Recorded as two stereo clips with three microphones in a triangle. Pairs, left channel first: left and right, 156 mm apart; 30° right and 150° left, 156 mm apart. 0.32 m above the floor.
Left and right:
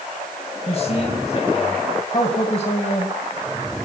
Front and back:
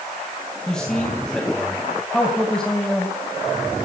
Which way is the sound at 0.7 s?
55° left.